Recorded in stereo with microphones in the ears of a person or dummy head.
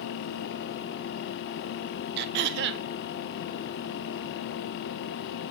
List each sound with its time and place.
2.2 s throat clearing: 60° right (ahead or behind), 0.6 m